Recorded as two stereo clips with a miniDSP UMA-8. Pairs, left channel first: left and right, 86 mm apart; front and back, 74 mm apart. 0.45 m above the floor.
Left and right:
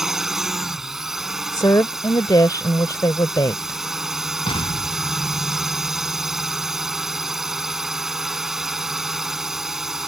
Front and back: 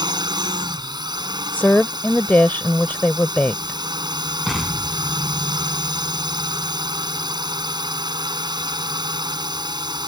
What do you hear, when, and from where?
0.0 s a drone: 175° right
1.5 s a woman speaking: 60° left
4.5 s an explosion: 90° left